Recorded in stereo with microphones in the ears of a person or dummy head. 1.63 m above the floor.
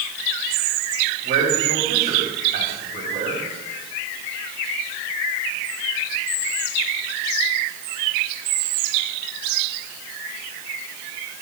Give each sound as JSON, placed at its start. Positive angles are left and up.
{"t": 1.2, "sound": "a man speaking", "side_deg": -40, "distance_m": 9.0}